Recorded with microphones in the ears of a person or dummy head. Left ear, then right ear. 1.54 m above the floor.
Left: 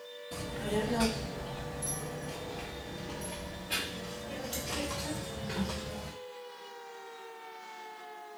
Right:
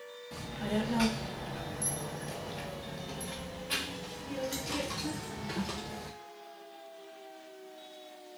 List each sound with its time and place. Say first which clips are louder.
0.3 s a child speaking: left 2 dB; 10° right (ahead or behind), 1.1 m; by 6.1 s 55° right (ahead or behind), 3 m